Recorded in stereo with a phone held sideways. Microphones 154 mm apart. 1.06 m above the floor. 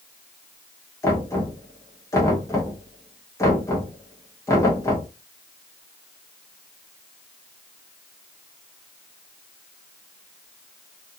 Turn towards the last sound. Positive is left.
turn(degrees=20)  # may be behind; listen again after turning